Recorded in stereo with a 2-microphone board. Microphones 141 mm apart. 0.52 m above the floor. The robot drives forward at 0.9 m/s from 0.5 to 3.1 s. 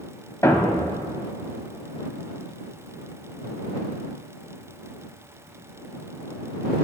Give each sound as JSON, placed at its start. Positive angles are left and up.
{"t": 0.4, "sound": "a thud", "side_deg": 20, "distance_m": 1.4}